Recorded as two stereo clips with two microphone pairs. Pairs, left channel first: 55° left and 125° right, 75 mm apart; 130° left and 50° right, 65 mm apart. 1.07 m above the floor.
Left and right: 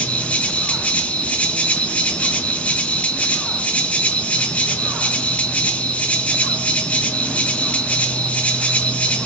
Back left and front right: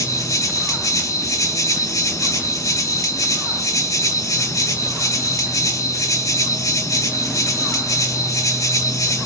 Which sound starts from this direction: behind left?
An insect, at 0.0 s.